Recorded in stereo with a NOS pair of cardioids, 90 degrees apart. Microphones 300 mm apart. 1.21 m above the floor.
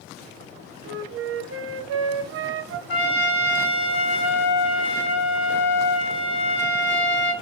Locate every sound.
0.8 s a flute: 45° right, 0.8 m
2.9 s a trumpet: 40° left, 1.3 m